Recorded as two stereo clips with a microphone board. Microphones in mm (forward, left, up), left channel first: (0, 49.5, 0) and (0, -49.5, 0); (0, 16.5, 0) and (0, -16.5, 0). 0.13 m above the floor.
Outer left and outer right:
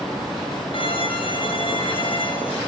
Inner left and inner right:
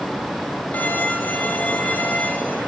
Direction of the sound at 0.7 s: 60° left (ahead or behind).